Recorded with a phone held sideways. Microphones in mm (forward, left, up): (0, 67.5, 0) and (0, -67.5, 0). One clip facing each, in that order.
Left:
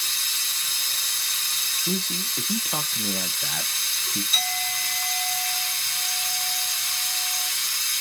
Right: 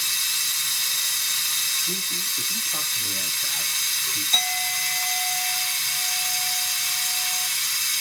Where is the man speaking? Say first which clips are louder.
Left 8 dB; 75° left (ahead or behind), 0.7 m.